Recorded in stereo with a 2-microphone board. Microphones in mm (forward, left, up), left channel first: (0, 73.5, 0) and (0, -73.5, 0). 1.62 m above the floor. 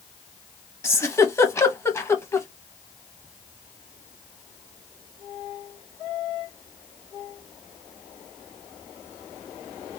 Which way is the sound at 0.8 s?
15° left (ahead or behind).